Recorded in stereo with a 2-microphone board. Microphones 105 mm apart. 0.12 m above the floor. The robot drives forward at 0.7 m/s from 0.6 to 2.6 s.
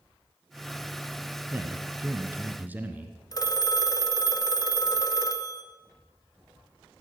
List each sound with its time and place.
1.5 s a man speaking: 20° right (ahead or behind), 1.4 m; by 3.2 s 15° right (ahead or behind), 1.6 m
3.3 s a phone ringing: 35° left (ahead or behind), 1.0 m